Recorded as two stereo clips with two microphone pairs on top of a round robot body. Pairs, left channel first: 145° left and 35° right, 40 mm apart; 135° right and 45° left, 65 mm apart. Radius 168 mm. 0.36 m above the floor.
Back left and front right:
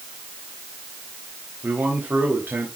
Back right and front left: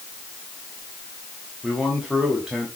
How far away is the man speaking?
About 3.5 m.